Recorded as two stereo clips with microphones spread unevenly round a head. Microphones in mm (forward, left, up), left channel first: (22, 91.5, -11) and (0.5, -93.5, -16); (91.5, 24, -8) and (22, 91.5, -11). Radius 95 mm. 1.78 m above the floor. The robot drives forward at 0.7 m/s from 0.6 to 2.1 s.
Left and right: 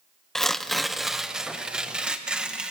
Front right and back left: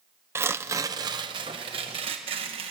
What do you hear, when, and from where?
0.3 s tearing paper: 165° left, 0.6 m; by 2.7 s 175° left, 1.4 m